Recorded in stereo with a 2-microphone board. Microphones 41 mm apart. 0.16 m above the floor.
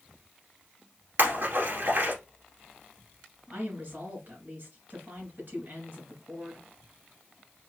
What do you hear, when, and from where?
1.2 s a splash: 60° right (ahead or behind), 2.0 m
3.5 s a woman speaking: 55° right (ahead or behind), 2.5 m